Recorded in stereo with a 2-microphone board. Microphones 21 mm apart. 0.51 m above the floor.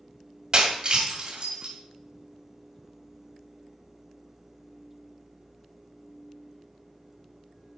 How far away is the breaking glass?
About 2 m.